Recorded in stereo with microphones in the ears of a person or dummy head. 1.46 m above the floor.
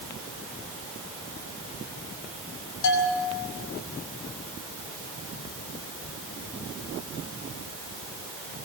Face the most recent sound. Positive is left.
turn(degrees=65)  # may be behind; listen again after turning